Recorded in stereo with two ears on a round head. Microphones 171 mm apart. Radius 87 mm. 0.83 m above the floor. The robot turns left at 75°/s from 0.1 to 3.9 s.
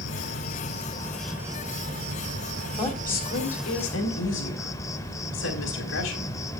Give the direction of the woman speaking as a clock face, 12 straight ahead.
7 o'clock.